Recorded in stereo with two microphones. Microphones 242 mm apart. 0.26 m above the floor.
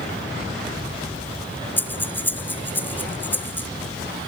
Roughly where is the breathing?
Centre.